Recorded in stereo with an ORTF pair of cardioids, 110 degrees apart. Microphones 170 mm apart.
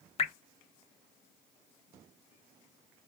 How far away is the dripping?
About 0.5 m.